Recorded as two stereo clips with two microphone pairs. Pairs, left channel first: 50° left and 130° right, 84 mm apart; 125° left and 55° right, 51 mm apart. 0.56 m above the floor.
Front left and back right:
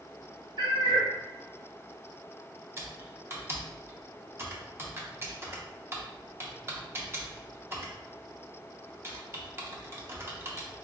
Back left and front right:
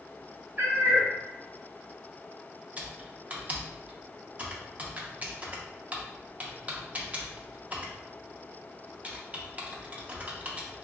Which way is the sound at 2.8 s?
90° right.